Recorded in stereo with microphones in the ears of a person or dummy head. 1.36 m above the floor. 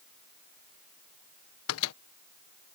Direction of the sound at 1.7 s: 85° left.